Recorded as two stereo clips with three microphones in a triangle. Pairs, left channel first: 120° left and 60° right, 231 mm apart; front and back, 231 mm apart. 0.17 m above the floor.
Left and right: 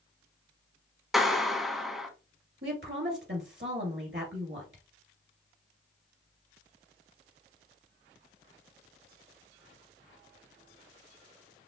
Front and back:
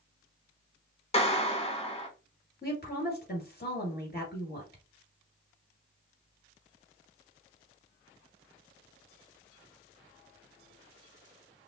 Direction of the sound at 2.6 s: 40° right.